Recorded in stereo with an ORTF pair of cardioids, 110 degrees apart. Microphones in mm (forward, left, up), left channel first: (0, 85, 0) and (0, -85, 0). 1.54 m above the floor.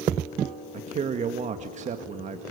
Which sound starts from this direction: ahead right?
A man speaking, at 0.7 s.